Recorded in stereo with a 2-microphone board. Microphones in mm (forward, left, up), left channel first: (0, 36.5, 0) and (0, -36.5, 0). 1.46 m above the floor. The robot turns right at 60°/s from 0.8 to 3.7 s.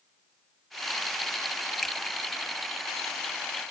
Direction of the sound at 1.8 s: 5° left (ahead or behind).